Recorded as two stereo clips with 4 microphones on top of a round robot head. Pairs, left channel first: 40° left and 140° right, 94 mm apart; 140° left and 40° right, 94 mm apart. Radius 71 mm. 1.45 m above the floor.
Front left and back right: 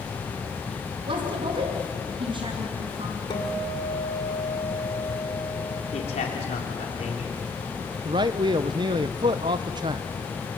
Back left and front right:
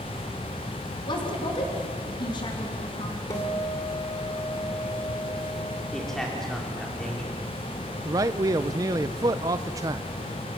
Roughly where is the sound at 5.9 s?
Ahead left.